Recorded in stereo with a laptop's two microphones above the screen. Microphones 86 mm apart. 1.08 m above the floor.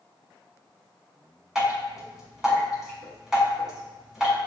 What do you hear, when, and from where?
1.6 s dripping: 5° right (ahead or behind), 1.4 m